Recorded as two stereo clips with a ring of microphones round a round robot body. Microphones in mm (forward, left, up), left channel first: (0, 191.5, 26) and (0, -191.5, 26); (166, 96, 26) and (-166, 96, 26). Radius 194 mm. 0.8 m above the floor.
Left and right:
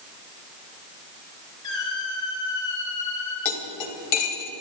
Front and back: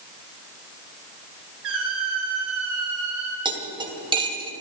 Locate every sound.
1.6 s a squeak: 135° left, 5.5 m
3.5 s cutlery clinking: 105° left, 3 m